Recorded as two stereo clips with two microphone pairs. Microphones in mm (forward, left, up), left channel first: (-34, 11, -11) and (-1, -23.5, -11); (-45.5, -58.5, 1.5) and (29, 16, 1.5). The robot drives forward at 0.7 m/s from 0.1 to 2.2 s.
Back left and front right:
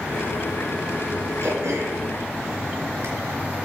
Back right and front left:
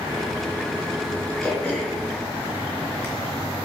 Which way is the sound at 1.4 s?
60° right.